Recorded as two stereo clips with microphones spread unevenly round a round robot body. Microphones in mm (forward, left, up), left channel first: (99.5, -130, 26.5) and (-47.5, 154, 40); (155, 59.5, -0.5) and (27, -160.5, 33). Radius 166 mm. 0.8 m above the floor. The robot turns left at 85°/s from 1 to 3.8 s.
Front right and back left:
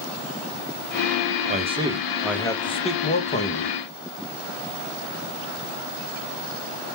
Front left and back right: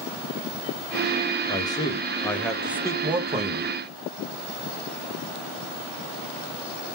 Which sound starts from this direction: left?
A man speaking, at 1.5 s.